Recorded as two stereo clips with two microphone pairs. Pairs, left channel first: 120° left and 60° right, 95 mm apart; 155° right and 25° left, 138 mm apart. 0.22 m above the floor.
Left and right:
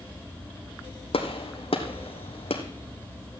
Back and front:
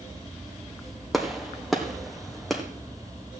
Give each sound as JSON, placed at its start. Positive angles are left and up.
{"t": 1.1, "sound": "a gunshot", "azimuth_deg": 115, "distance_m": 2.0}